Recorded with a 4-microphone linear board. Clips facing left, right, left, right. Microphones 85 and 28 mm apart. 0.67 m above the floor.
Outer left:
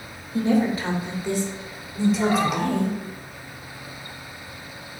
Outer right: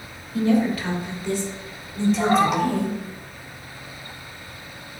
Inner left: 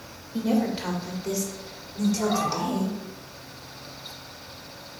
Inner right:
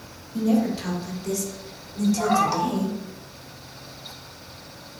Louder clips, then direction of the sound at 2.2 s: Outer right 3 dB, inner right 4 dB; 45° right (ahead or behind).